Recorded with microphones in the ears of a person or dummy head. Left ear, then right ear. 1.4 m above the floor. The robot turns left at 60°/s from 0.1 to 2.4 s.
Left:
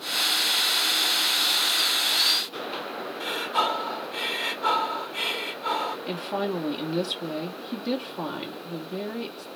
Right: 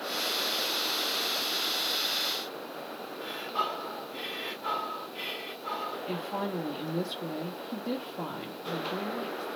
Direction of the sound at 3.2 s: 50° left (ahead or behind).